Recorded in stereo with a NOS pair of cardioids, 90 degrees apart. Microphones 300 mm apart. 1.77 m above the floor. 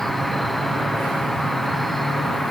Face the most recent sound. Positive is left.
turn(degrees=0)